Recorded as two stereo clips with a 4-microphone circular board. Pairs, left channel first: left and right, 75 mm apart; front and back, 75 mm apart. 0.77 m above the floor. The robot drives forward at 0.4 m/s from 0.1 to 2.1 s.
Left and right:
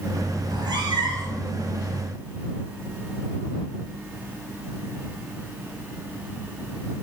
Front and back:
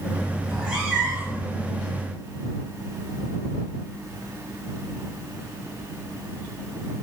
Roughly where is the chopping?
No chopping in this recording.